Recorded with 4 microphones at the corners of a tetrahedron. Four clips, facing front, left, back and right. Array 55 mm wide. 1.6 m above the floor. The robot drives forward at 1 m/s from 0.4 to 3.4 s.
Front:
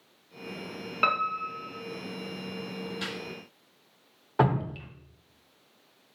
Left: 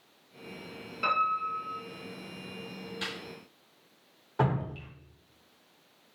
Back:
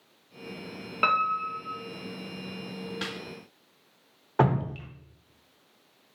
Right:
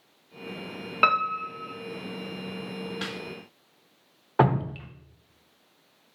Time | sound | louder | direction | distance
1.0 | a piano | right 4 dB, back 2 dB | 95° right | 1.4 m
3.0 | a snare drum | even, back 1 dB | 135° right | 3.5 m
4.4 | dripping | right 7 dB, back 1 dB | 100° right | 1.1 m